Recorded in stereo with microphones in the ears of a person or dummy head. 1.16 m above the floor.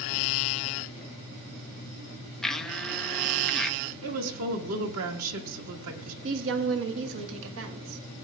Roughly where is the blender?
Centre.